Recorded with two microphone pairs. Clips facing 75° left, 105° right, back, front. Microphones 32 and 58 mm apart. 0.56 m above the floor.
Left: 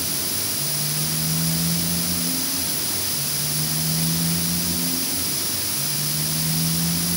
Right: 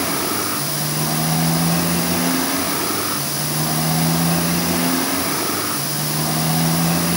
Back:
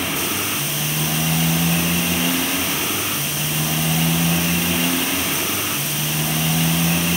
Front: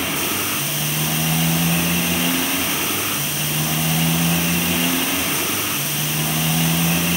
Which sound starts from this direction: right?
A motorcycle, at 0.0 s.